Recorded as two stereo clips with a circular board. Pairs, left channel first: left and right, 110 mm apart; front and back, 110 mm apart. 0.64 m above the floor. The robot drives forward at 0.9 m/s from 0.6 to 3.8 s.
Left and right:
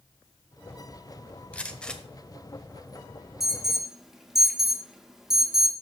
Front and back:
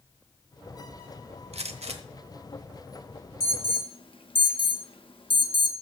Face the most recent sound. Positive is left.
turn(degrees=-5)